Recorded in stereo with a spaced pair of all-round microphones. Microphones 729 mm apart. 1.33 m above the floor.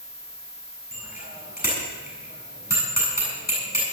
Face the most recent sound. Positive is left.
turn(degrees=10)  # may be behind; listen again after turning